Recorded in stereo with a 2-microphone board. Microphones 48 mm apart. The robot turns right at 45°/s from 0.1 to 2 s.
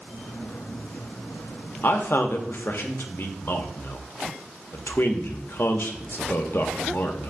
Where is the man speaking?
50° left (ahead or behind), 0.6 m; by 7.3 s 55° left (ahead or behind), 0.6 m.